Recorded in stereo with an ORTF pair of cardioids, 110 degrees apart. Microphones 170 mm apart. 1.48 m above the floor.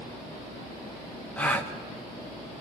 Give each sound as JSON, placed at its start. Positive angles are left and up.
{"t": 1.4, "sound": "a gasp", "azimuth_deg": 10, "distance_m": 1.5}